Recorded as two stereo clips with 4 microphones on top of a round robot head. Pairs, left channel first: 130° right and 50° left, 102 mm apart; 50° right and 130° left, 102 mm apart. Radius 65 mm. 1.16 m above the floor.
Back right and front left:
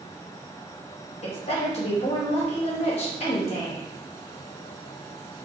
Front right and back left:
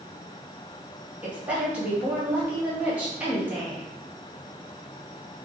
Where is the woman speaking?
155° right, 1.7 m.